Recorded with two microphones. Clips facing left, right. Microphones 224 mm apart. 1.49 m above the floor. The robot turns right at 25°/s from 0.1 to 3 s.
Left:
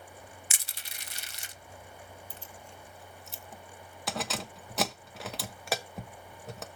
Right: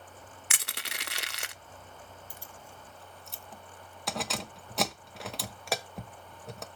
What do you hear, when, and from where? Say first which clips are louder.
0.5 s crushing: right 7 dB; 65° right (ahead or behind), 0.6 m; by 1.5 s 70° right (ahead or behind), 0.6 m
2.3 s keys jangling: left 1 dB; 15° right (ahead or behind), 0.9 m; by 6.7 s centre (ahead or behind), 0.9 m